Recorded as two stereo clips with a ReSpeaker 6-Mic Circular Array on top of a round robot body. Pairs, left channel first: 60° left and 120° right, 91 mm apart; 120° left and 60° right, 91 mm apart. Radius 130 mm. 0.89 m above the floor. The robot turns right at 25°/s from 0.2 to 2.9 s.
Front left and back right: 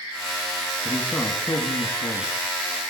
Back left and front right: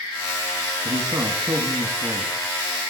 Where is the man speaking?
20° right, 1.2 m; by 2.3 s 20° left, 1.2 m.